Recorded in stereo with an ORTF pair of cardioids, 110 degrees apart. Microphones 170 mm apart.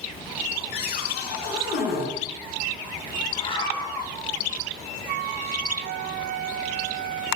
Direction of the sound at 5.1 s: 65° right.